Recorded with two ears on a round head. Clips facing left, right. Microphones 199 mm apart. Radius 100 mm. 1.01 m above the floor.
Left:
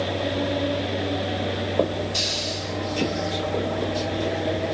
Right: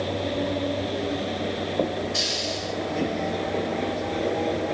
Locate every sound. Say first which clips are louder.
2.1 s a hiss: even; 15° left (ahead or behind), 7 m